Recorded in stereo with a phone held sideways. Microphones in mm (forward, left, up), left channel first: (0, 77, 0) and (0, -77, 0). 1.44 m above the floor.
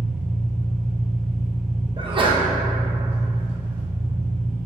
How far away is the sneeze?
About 0.6 m.